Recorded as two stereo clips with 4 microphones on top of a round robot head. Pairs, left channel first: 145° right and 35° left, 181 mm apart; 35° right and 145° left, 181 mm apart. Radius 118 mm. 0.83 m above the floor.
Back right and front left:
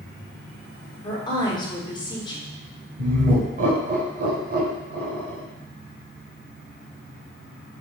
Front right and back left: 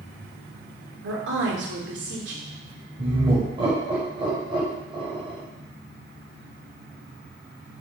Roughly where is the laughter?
Left.